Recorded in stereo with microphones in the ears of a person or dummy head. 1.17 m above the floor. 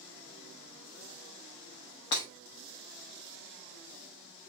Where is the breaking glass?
15° left (ahead or behind), 0.6 m.